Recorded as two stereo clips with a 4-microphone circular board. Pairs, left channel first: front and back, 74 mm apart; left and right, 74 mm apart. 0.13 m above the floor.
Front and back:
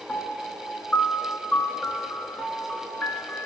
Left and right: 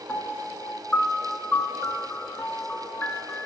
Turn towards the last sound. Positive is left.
turn(degrees=45)